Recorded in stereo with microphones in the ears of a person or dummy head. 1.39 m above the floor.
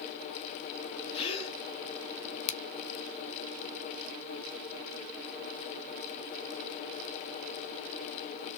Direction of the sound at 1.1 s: 35° left (ahead or behind).